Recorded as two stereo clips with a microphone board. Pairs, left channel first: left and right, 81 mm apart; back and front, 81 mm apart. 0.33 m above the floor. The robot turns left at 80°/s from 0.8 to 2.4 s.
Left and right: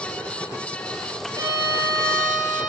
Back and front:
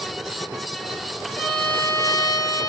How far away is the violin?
About 7.5 m.